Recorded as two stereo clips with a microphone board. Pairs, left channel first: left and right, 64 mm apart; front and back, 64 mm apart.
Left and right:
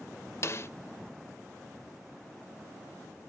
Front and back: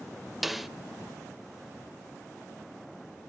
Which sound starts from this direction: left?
A snare drum, at 0.4 s.